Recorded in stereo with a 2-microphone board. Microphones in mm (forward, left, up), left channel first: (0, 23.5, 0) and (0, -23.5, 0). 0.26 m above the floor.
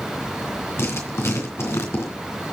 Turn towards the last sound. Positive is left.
turn(degrees=65)  # may be behind; listen again after turning